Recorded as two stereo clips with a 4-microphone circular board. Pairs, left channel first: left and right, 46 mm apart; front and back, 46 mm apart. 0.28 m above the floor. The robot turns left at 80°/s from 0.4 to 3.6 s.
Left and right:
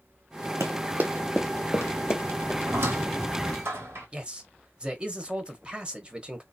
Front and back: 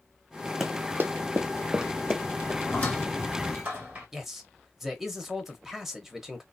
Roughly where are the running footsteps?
Right.